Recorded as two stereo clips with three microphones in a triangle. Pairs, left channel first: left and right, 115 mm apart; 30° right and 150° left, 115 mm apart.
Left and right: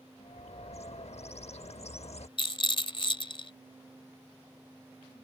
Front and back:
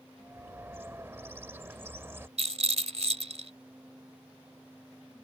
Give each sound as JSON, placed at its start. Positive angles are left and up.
{"t": 0.2, "sound": "a bird", "azimuth_deg": 85}
{"t": 2.4, "sound": "a rattle", "azimuth_deg": 130}